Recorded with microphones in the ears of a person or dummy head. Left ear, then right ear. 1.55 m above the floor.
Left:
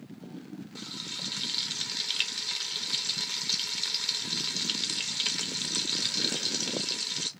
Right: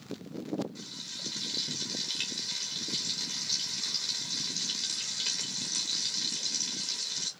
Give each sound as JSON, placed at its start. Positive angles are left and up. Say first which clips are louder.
{"t": 0.8, "sound": "frying", "louder": "left 3 dB", "side_deg": 40, "distance_m": 1.0}